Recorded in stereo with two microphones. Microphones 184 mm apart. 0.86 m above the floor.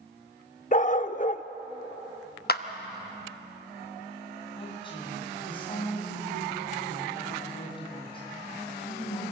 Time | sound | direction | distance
0.7 | a dog barking | 45° left (ahead or behind) | 0.5 m
2.5 | a clap | 55° left (ahead or behind) | 0.9 m
4.5 | a woman speaking | 25° left (ahead or behind) | 7 m